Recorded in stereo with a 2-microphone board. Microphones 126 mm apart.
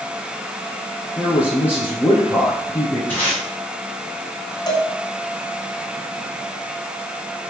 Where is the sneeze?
No sneeze in this recording.